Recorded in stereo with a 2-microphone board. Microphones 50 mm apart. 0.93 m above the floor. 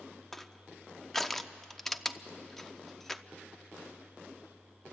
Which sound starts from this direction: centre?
Crushing, at 0.3 s.